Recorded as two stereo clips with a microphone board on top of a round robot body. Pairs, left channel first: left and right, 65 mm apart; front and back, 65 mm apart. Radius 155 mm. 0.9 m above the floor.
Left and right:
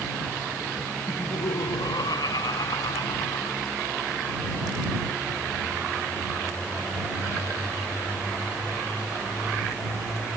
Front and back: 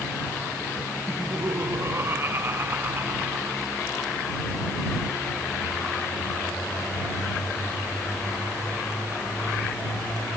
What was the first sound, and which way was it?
Laughter, 120° left.